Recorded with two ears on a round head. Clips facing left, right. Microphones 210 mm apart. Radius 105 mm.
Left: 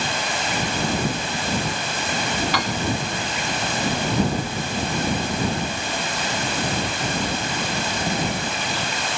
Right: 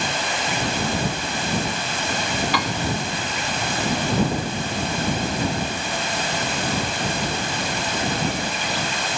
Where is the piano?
80° right.